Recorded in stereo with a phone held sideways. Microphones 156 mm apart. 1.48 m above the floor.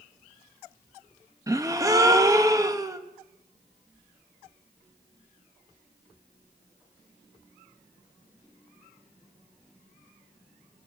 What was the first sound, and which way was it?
A gasp, 20° right (ahead or behind).